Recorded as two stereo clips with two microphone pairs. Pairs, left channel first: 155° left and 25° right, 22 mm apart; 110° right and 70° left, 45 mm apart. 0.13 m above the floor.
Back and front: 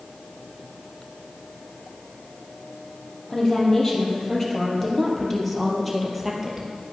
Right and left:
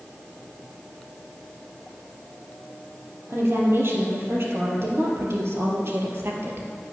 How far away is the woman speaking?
About 3.5 m.